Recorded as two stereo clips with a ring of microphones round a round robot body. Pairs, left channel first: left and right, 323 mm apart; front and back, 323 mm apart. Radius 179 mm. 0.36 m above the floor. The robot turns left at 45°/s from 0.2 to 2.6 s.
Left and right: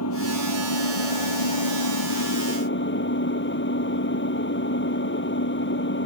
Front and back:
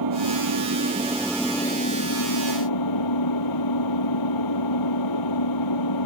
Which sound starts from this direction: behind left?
An engine running, at 0.0 s.